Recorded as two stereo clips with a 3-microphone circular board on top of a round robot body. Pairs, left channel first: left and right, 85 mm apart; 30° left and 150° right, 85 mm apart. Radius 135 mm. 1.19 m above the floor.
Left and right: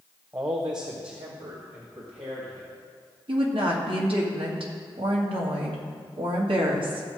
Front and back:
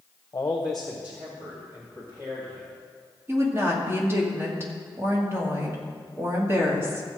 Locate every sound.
0.3 s a man speaking: 25° right, 0.9 m; by 2.7 s 100° right, 3.5 m
3.3 s a woman speaking: 90° right, 2 m